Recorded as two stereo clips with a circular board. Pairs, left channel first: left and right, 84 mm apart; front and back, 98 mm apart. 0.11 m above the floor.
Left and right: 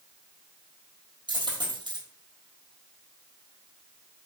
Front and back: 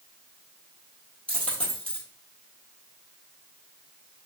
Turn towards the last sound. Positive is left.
turn(degrees=-80)